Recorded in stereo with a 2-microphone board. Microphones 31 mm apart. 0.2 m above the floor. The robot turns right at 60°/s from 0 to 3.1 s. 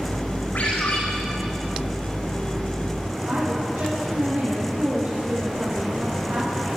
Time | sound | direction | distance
0.6 | a ringtone | 80° left | 6 m
3.2 | a woman speaking | 55° right (ahead or behind) | 3.5 m